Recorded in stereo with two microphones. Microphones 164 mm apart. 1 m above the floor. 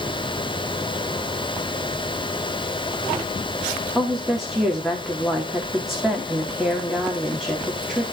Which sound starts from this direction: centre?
A woman speaking, at 4.0 s.